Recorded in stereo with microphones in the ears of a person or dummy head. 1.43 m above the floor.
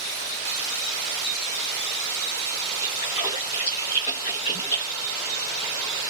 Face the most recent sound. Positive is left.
turn(degrees=40)  # may be behind; listen again after turning